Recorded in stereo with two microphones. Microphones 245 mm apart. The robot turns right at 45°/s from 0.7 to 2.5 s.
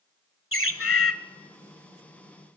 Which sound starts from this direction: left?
A bird, at 0.5 s.